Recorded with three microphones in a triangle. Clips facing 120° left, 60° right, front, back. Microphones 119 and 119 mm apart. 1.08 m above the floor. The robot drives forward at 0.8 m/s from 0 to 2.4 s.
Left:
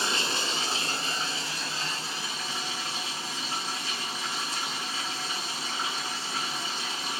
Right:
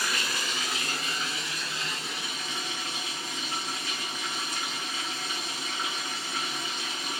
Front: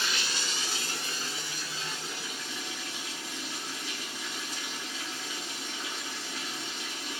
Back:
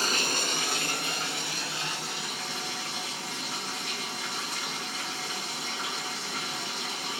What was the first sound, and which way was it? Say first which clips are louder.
Running water: left 2 dB, back 5 dB; 165° left.